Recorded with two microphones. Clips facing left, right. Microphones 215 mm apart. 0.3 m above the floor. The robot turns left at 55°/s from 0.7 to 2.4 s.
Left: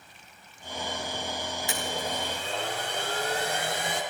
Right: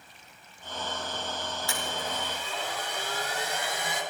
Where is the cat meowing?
I don't hear a cat meowing.